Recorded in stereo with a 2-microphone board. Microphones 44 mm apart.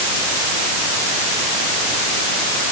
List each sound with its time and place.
Only background noise.